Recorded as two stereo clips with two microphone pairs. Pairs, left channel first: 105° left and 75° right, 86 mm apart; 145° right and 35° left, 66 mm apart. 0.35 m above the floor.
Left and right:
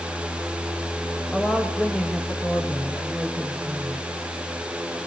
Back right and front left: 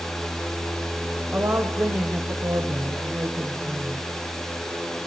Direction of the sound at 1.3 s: 30° left.